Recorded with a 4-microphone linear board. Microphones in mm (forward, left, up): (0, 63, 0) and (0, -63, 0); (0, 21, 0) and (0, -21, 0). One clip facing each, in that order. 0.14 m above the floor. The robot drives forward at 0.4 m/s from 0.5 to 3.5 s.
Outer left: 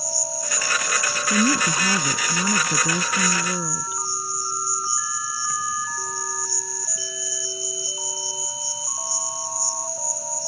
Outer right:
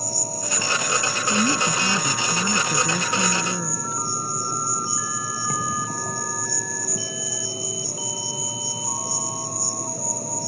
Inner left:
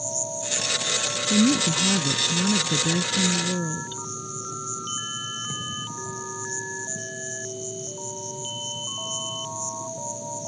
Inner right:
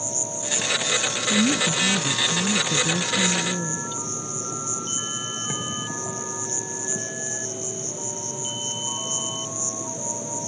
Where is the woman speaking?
10° left (ahead or behind).